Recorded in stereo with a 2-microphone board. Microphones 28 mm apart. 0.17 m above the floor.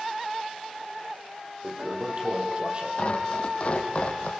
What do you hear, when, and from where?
1.6 s a toilet flushing: 35° right (ahead or behind), 4.5 m
3.0 s tearing paper: 40° left (ahead or behind), 3.5 m